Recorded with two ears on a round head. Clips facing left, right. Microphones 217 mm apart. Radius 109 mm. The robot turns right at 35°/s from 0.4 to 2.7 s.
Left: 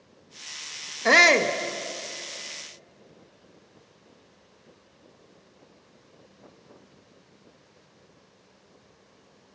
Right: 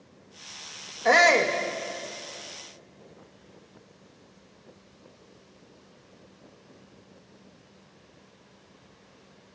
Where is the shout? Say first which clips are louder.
Even; 45° left (ahead or behind), 0.6 m; by 1.5 s 40° left (ahead or behind), 0.6 m.